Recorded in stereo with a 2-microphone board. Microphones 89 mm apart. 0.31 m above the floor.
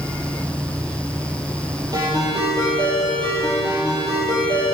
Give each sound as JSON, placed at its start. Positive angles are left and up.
{"t": 1.9, "sound": "a ringtone", "side_deg": -45, "distance_m": 6.0}